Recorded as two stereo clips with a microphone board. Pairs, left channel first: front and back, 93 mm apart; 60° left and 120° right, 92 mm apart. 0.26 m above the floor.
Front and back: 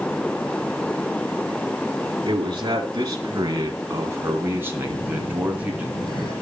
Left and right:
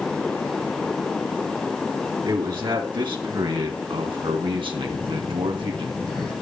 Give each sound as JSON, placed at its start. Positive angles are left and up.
{"t": 2.2, "sound": "a man speaking", "azimuth_deg": -145, "distance_m": 3.0}
{"t": 4.9, "sound": "a phone buzzing", "azimuth_deg": -25, "distance_m": 9.0}